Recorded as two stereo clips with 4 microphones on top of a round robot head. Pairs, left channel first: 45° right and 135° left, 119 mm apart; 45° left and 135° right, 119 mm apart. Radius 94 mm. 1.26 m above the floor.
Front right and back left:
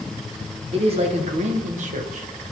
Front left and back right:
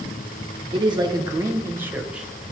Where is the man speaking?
175° left, 1.5 m; by 2.4 s 140° left, 1.6 m.